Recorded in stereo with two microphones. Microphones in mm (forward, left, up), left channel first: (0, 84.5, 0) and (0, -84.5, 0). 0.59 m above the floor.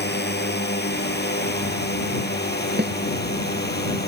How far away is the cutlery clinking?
I don't hear cutlery clinking.